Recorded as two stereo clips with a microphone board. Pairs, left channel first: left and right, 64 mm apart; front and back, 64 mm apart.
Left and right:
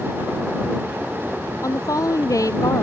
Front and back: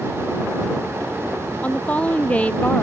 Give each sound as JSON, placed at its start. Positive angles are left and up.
{"t": 1.6, "sound": "a woman speaking", "azimuth_deg": 70}